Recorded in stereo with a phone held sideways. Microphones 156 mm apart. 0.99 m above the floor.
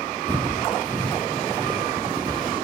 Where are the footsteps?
30° right (ahead or behind), 5.5 m; by 2.5 s 25° right (ahead or behind), 6.5 m.